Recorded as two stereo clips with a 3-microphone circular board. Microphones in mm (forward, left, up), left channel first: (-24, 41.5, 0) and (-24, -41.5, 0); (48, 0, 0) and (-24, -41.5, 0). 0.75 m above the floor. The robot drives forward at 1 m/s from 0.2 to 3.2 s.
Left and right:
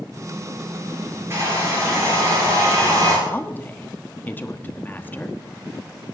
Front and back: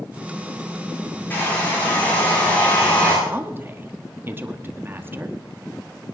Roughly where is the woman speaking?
Behind left.